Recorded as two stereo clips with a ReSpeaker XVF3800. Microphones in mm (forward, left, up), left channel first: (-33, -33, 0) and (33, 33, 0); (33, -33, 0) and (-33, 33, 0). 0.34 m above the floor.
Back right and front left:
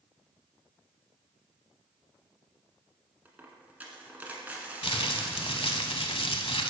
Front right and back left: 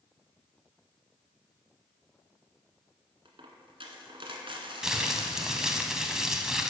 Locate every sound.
3.2 s a dropped coin: 120° left, 1.5 m
4.8 s crumpling: 140° right, 0.8 m